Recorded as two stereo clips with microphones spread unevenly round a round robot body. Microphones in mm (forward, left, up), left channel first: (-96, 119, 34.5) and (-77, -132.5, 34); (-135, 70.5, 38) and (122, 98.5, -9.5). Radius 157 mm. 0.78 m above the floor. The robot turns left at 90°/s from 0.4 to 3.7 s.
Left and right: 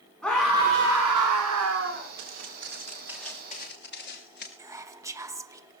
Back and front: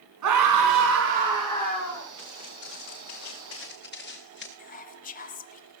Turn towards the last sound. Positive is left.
turn(degrees=-145)